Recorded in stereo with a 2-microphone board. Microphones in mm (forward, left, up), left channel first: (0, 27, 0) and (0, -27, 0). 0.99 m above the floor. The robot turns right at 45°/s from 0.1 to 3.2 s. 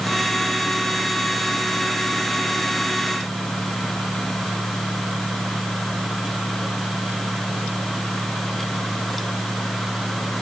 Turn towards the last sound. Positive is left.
No sound to turn to.